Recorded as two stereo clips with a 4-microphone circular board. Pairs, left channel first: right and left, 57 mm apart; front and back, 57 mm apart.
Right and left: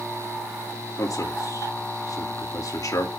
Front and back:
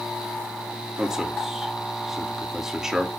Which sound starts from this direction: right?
A man speaking, at 1.0 s.